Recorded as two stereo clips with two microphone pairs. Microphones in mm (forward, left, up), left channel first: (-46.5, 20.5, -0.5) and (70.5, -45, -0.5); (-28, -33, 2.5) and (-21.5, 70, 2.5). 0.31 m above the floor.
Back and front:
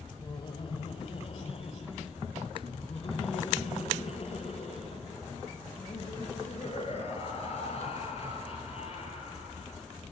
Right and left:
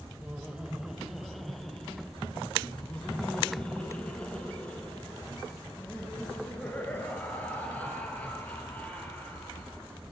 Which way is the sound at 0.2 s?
150° left.